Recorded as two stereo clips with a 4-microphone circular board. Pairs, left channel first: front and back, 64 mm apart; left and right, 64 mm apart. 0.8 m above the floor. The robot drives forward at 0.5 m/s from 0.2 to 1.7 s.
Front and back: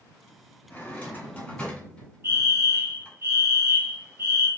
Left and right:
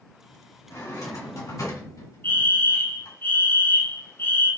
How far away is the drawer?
About 2 m.